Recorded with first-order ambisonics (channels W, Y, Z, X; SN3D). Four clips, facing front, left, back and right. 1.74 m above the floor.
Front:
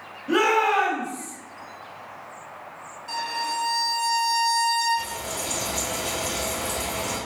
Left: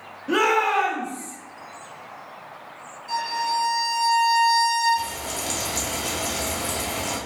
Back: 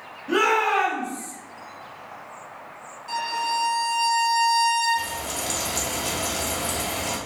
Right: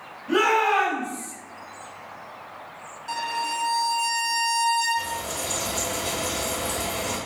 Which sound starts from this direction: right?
A violin, at 3.1 s.